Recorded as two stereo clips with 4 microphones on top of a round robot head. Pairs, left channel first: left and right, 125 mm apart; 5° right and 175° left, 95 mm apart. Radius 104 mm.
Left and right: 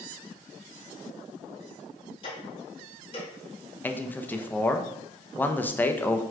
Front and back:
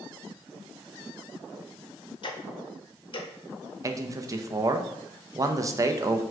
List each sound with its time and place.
2.2 s ticking: 30° left, 0.7 m
3.8 s a man speaking: 155° left, 0.5 m